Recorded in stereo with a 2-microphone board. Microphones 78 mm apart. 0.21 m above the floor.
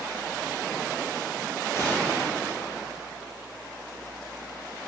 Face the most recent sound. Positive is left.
turn(degrees=40)  # may be behind; listen again after turning